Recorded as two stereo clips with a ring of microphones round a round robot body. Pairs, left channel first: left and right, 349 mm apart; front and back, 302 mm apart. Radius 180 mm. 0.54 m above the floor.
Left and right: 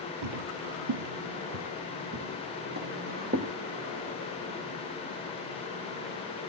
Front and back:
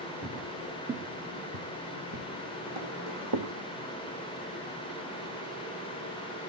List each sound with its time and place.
0.2 s footsteps: 75° right, 1.0 m; by 3.5 s 160° right, 2 m